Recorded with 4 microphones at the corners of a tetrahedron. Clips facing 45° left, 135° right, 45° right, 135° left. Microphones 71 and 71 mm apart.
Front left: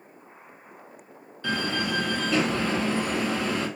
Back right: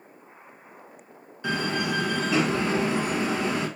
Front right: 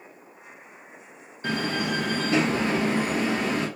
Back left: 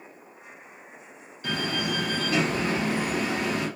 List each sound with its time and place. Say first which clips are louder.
1.4 s a door slam: back right 1 dB, front right 2 dB; 70° right, 1.3 m